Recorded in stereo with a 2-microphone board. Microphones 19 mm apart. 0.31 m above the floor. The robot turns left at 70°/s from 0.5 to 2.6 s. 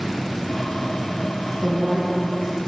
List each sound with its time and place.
1.6 s a woman speaking: 65° right, 3.5 m; by 2.5 s 130° right, 3.5 m